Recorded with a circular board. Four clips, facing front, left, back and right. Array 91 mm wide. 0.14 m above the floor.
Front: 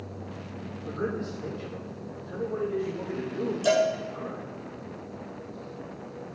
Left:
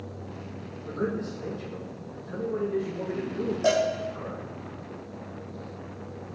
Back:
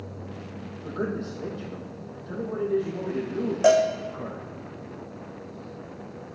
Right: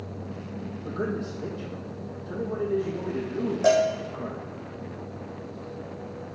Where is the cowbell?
170° right, 2 m.